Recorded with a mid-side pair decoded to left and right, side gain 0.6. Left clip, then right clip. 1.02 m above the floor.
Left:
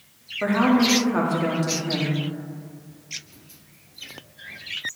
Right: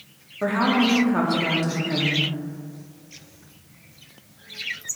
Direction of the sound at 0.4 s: 5° left.